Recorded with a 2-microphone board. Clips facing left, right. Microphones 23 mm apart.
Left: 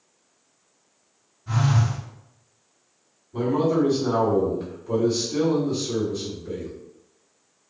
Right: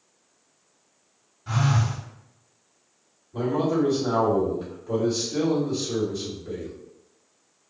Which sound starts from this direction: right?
A phone buzzing, at 1.5 s.